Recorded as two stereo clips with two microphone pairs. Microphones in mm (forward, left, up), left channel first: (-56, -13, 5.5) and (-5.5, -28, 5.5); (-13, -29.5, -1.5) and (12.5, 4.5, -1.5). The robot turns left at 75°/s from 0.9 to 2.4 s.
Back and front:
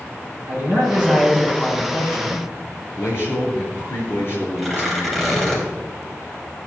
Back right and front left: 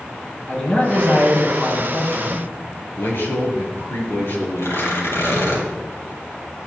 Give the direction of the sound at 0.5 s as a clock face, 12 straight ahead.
2 o'clock.